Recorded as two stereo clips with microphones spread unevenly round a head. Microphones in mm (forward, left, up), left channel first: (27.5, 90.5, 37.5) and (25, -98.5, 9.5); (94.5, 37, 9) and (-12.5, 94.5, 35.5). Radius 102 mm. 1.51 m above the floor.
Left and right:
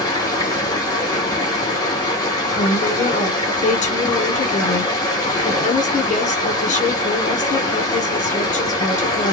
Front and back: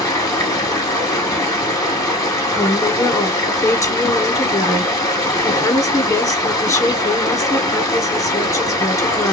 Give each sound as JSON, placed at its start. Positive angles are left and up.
{"t": 0.0, "sound": "running water", "azimuth_deg": 40, "distance_m": 1.4}
{"t": 2.5, "sound": "a woman speaking", "azimuth_deg": 35, "distance_m": 1.3}